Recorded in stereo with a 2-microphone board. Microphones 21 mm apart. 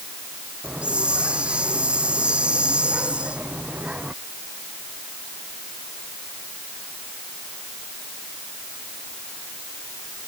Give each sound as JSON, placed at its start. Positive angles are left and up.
{"t": 0.6, "sound": "a hiss", "side_deg": -55}